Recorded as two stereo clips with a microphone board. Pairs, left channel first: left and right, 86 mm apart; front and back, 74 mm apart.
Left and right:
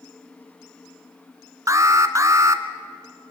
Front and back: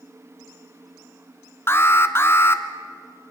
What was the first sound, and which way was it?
An alarm, 50° right.